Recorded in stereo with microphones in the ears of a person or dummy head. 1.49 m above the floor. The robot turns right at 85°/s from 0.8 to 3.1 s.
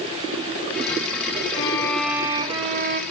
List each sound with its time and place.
1.5 s a violin: 135° left, 0.5 m; by 3.0 s 100° right, 0.5 m